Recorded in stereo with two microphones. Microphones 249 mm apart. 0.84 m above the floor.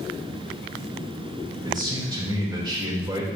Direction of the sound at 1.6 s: 20° right (ahead or behind).